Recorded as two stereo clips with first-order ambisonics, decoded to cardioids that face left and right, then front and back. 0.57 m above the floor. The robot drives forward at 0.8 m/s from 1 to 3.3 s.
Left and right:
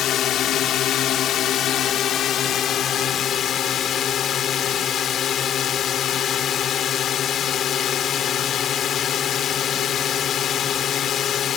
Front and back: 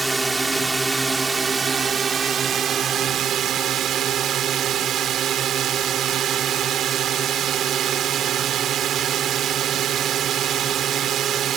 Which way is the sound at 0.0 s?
105° left.